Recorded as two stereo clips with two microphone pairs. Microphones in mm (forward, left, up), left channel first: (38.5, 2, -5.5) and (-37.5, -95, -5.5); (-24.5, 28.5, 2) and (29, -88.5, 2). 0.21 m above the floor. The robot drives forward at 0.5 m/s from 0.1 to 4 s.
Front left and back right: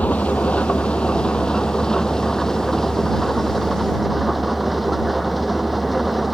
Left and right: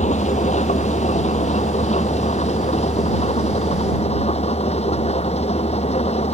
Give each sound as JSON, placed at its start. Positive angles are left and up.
{"t": 0.0, "sound": "an engine running", "azimuth_deg": 130}